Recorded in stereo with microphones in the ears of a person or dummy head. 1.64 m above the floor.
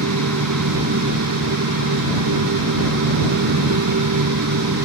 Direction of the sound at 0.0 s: 85° right.